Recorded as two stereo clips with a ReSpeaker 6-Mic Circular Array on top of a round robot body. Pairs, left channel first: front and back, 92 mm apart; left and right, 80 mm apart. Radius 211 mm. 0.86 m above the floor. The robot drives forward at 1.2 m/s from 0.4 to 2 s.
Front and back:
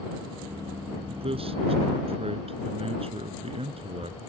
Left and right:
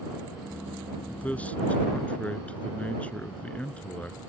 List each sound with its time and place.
1.1 s a man speaking: 160° left; by 4.2 s 165° left